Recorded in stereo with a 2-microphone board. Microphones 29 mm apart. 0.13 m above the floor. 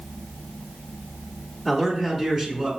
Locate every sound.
1.6 s a man speaking: centre (ahead or behind), 1.1 m; by 2.7 s 20° right (ahead or behind), 1.2 m